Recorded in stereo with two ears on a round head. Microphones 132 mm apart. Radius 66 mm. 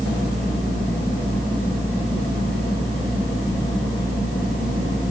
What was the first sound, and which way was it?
Only background noise.